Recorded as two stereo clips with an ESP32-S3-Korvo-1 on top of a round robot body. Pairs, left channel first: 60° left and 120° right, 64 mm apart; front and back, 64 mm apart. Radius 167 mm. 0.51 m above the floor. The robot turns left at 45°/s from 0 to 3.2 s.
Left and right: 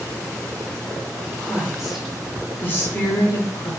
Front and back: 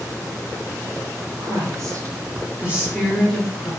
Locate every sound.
1.4 s a woman speaking: 175° left, 1.4 m; by 3.7 s 95° left, 1.4 m